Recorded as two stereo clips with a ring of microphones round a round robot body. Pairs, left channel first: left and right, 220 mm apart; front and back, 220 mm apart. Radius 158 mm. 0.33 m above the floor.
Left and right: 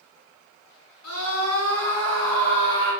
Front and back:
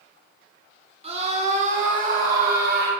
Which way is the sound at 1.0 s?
120° left.